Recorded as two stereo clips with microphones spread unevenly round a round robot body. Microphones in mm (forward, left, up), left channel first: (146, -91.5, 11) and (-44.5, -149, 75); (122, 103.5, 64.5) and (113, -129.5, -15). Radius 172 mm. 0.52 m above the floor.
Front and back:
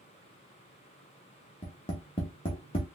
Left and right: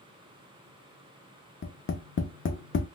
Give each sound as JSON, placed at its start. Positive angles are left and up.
{"t": 1.6, "sound": "tapping", "azimuth_deg": 45, "distance_m": 0.7}